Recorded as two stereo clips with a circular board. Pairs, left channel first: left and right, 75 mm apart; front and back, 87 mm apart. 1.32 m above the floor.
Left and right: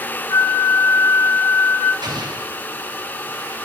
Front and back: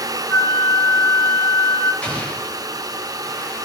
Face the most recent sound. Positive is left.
turn(degrees=-75)